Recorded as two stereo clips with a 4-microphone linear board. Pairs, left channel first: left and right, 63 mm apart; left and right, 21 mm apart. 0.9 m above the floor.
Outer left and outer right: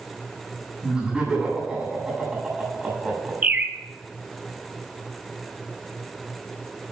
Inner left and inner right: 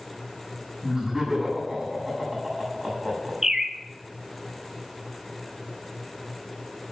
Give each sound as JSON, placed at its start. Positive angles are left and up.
{"t": 0.8, "sound": "laughter", "side_deg": -10, "distance_m": 7.0}
{"t": 3.4, "sound": "a bird", "side_deg": -25, "distance_m": 0.9}